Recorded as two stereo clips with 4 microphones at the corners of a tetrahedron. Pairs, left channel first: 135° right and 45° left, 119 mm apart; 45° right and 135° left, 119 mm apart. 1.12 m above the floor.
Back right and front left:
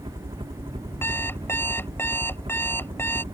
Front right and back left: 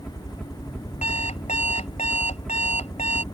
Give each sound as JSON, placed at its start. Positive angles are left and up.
{"t": 0.0, "sound": "a helicopter", "azimuth_deg": 40}
{"t": 1.0, "sound": "an alarm clock", "azimuth_deg": -65}